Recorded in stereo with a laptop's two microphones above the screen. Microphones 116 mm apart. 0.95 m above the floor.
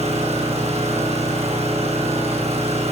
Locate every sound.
0.0 s an engine running: 60° right (ahead or behind), 8.5 m